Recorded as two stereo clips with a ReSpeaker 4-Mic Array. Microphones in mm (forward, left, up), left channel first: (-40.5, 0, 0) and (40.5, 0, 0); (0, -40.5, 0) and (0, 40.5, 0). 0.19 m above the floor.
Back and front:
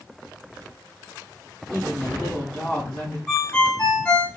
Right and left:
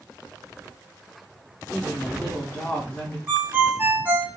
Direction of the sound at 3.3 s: 120° left.